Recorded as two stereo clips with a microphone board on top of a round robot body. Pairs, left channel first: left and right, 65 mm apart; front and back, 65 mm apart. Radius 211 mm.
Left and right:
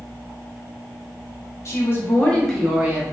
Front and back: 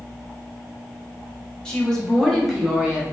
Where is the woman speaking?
75° left, 1.3 m; by 3.0 s 115° right, 1.1 m.